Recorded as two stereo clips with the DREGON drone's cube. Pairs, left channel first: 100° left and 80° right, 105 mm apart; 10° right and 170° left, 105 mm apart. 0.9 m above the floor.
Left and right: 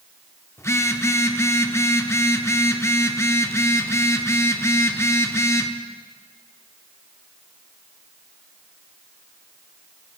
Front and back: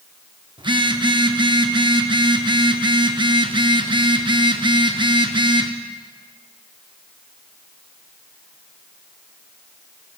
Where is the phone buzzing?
155° left, 0.5 m.